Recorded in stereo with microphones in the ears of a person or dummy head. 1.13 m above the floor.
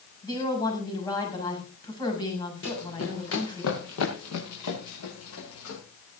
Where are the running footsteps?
70° left (ahead or behind), 5 m; by 5.8 s 75° left (ahead or behind), 8.5 m.